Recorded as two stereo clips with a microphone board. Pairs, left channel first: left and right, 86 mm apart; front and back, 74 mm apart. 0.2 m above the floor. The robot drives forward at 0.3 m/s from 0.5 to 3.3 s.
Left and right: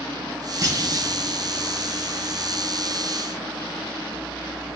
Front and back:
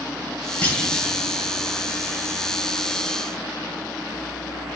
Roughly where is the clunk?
Ahead right.